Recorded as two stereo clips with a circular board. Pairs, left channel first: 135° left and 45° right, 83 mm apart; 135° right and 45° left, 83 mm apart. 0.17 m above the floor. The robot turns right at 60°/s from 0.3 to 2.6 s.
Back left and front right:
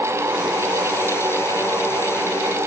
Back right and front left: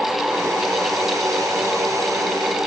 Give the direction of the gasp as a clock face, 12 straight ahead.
No gasp in this recording.